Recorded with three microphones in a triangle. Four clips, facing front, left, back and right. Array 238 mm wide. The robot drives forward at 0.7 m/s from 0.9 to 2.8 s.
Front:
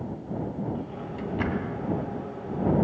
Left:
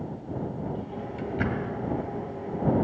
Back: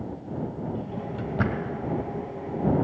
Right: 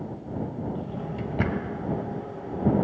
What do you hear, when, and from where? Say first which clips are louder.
0.8 s a drawer: right 1 dB, back 2 dB; 115° right, 1.0 m; by 1.8 s 140° right, 1.4 m